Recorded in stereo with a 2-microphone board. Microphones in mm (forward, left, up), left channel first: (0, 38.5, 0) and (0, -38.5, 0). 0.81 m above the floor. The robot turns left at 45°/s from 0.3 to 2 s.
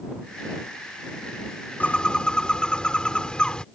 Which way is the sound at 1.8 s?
20° left (ahead or behind).